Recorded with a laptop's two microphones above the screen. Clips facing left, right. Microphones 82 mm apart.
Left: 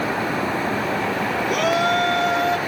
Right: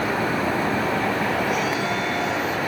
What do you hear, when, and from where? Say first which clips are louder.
1.5 s a shout: left 4 dB; 65° left (ahead or behind)